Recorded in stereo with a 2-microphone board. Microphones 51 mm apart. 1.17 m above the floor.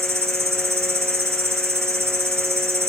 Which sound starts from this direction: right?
An insect, at 0.0 s.